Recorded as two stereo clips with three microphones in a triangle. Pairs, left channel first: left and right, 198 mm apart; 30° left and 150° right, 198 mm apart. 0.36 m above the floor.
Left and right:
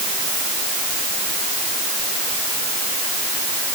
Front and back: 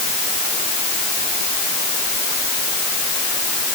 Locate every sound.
Only background noise.